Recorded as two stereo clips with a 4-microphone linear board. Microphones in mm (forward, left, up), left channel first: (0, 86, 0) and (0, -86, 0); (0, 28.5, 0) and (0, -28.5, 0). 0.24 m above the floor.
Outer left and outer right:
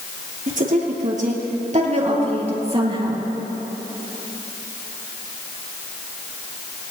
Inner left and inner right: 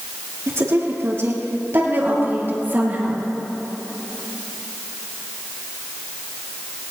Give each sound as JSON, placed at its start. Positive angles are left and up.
{"t": 0.5, "sound": "a woman speaking", "side_deg": -50, "distance_m": 4.5}